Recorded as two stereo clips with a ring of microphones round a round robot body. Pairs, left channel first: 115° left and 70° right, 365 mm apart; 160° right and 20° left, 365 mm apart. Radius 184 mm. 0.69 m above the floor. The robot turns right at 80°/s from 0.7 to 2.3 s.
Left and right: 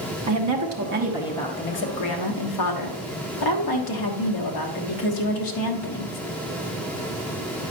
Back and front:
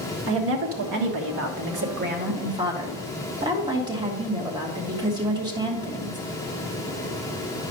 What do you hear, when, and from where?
0.3 s a woman speaking: 30° right, 1.4 m; by 6.2 s 100° left, 1.4 m